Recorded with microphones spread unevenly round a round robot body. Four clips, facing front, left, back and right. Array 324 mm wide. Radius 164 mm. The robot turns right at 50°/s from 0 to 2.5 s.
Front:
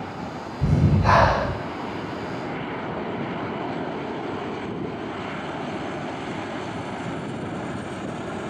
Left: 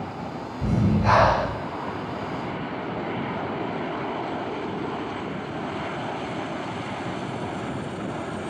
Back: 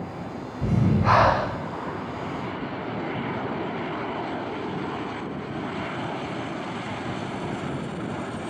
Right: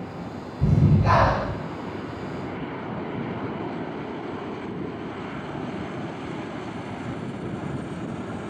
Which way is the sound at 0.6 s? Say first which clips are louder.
Right 1 dB, front 1 dB; 75° right.